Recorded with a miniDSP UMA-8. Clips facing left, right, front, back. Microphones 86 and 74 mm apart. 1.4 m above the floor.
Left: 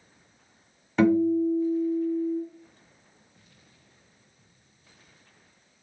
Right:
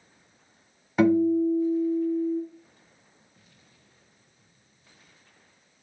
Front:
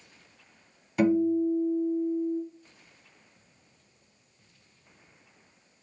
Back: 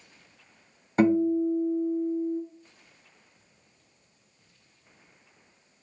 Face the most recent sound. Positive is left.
turn(degrees=-165)